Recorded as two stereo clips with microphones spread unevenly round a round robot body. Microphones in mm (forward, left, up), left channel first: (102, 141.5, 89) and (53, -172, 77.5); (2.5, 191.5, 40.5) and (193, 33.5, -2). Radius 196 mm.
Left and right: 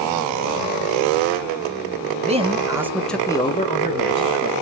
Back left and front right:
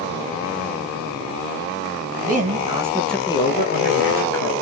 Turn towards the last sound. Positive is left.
turn(degrees=130)